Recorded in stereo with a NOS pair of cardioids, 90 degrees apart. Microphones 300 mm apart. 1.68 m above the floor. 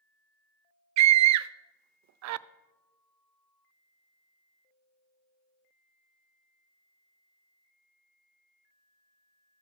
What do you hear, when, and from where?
1.0 s a scream: 65° right, 0.6 m